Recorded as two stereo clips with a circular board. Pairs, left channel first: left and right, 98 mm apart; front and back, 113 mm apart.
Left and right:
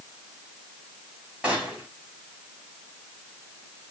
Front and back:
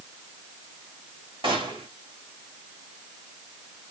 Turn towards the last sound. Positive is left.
turn(degrees=-165)